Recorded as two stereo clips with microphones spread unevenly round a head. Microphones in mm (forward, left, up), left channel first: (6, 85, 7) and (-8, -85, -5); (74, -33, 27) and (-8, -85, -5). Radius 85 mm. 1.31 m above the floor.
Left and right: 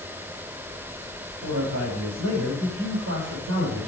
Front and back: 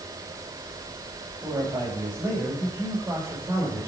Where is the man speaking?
80° right, 6 m; by 3.9 s 85° right, 4.5 m.